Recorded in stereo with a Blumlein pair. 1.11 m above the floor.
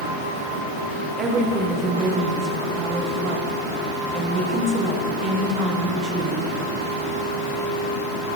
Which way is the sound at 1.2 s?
25° right.